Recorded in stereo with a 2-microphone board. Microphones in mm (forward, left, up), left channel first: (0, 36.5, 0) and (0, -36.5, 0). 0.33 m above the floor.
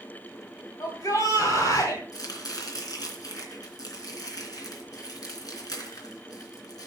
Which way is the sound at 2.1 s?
60° left (ahead or behind).